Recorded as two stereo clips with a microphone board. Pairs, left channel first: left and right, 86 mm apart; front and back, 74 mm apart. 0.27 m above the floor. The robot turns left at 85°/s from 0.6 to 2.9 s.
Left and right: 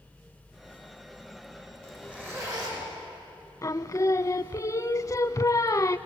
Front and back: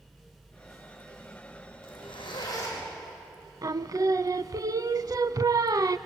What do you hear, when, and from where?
1.8 s a zipper: 15° left, 6.5 m; by 2.8 s 70° right, 6.5 m
3.6 s singing: 140° left, 0.5 m